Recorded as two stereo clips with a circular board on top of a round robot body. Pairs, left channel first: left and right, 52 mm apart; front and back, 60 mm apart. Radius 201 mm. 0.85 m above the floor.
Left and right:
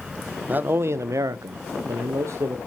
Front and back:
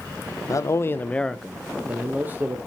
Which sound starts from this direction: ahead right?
A man speaking, at 0.5 s.